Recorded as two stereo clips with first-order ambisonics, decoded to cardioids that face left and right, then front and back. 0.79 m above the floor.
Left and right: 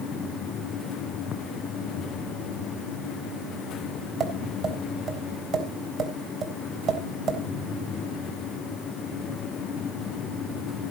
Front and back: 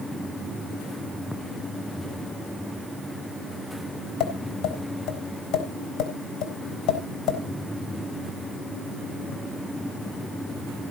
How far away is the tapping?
About 3.5 m.